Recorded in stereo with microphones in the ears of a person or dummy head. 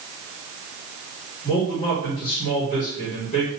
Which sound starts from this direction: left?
A man speaking, at 1.4 s.